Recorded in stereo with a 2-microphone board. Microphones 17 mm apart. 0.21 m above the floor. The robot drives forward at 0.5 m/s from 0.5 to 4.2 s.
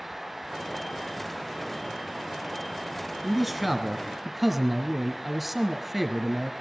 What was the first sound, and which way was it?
A man speaking, 5° right (ahead or behind).